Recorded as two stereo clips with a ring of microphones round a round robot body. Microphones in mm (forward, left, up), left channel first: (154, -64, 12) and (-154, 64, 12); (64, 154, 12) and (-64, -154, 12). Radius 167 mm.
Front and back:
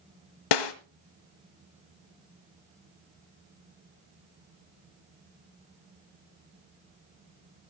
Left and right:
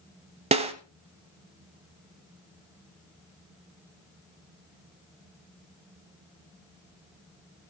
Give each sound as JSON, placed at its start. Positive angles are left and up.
{"t": 0.5, "sound": "a snare drum", "azimuth_deg": -40, "distance_m": 1.4}